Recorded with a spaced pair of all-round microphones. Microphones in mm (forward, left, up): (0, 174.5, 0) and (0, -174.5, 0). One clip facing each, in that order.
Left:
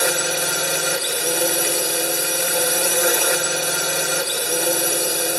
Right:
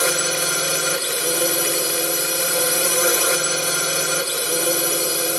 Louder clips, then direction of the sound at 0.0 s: Even; 5° right (ahead or behind).